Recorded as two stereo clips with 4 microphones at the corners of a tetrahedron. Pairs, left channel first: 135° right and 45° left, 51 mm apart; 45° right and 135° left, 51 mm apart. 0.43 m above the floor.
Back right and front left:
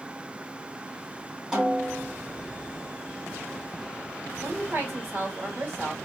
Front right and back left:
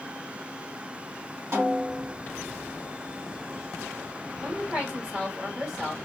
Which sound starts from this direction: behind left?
A snare drum, at 1.5 s.